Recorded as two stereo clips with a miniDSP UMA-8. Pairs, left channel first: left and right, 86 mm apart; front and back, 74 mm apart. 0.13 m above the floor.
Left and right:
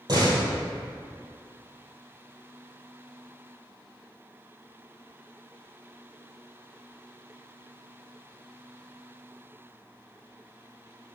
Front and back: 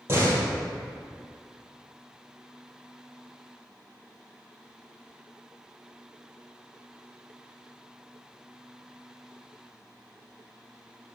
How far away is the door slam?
About 2.5 m.